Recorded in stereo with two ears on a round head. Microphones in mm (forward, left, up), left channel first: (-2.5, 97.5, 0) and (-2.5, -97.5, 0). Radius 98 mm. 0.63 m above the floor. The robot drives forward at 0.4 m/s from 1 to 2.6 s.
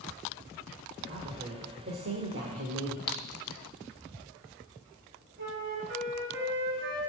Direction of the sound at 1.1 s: 40° right (ahead or behind).